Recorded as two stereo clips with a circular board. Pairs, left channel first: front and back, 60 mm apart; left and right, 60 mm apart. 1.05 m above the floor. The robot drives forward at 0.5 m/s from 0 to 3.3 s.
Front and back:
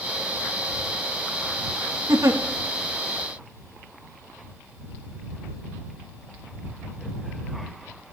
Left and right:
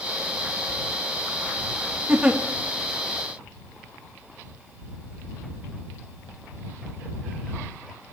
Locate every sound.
2.1 s a giggle: 160° right, 1.4 m